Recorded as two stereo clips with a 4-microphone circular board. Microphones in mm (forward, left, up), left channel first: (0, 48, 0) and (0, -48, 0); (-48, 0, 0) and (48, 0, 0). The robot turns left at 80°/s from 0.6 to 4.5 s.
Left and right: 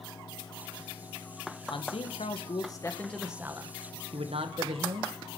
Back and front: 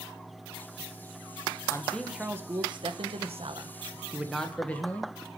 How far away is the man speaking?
About 1.6 m.